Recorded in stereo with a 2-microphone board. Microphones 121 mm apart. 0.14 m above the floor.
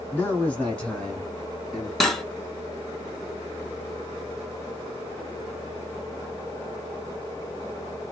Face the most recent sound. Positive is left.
turn(degrees=0)  # may be behind; listen again after turning